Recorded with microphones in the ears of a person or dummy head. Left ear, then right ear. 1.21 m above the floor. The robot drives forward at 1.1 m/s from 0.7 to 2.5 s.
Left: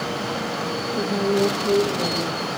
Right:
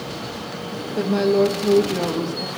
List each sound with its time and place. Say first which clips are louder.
1.0 s a woman speaking: right 4 dB; 60° right (ahead or behind), 1.3 m; by 2.5 s 45° right (ahead or behind), 1.5 m